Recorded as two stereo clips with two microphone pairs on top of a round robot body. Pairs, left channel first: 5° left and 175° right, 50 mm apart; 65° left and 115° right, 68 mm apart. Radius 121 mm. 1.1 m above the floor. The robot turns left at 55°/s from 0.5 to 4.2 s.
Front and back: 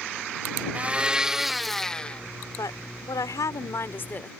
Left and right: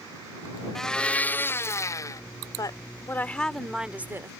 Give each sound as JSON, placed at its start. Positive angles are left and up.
{"t": 0.8, "sound": "a blender", "azimuth_deg": 155}
{"t": 2.6, "sound": "a woman speaking", "azimuth_deg": 35}